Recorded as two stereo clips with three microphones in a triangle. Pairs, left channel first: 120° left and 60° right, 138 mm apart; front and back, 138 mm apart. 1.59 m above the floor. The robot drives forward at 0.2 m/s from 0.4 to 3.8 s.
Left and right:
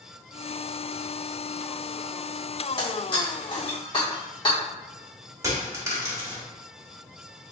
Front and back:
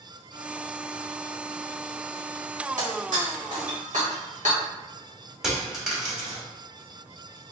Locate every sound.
2.8 s breaking glass: 170° left, 1.5 m
5.4 s a dropped coin: 95° right, 1.1 m